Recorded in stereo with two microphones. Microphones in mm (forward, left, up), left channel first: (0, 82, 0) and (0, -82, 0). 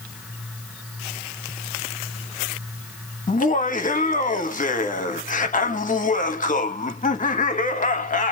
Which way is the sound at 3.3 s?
50° left (ahead or behind).